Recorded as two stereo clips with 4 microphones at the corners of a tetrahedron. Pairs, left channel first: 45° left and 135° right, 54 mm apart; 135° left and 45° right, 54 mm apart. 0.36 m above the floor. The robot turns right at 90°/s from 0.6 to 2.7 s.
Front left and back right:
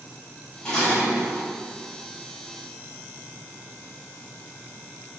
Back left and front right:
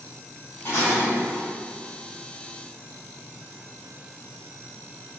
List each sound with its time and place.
0.7 s dishes clattering: 110° left, 1.1 m; by 1.5 s straight behind, 1.1 m